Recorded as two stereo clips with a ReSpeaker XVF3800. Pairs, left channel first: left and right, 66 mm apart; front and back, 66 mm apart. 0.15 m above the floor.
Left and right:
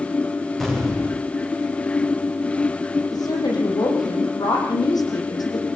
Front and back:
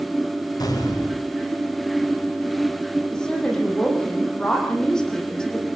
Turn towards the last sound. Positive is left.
turn(degrees=80)